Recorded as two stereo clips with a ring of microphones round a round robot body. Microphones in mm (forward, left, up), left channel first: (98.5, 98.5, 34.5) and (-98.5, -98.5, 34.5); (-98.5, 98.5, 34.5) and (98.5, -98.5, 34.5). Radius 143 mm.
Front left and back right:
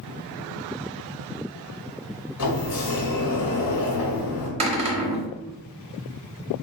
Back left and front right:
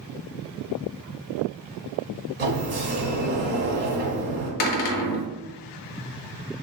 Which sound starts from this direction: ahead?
A sliding door, at 2.4 s.